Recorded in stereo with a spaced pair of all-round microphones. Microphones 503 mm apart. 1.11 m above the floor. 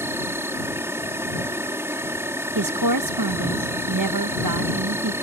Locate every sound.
0.0 s an insect: 5° right (ahead or behind)
2.5 s a woman speaking: 40° right (ahead or behind)